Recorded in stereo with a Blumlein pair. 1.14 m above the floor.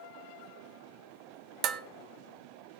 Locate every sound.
1.6 s dishes clattering: 35° right, 0.6 m